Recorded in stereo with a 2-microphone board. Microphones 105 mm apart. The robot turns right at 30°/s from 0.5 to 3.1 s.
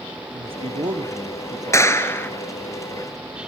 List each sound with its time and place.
0.3 s a man speaking: 75° right, 2 m; by 2.0 s 30° right, 2 m
1.7 s a clap: 30° left (ahead or behind), 1.2 m; by 2.3 s 20° left (ahead or behind), 1.2 m